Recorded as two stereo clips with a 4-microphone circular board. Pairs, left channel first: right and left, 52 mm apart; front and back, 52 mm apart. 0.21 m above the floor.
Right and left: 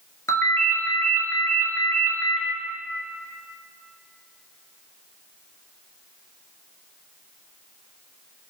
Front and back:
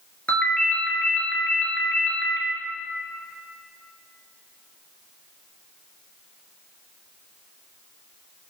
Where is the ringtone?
65° right, 1.2 m.